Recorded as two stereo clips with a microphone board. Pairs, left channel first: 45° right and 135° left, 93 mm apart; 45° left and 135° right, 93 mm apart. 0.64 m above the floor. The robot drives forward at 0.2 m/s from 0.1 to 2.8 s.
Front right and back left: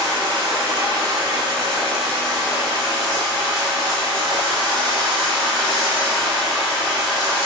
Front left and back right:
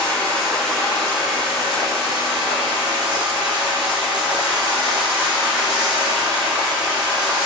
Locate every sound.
0.0 s running water: 125° left, 1.1 m; by 7.5 s 145° left, 1.5 m